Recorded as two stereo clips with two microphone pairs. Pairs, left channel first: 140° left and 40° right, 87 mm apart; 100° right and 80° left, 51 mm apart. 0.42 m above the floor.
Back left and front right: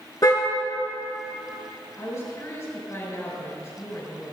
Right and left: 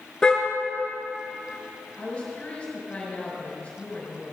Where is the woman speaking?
165° right, 6 m.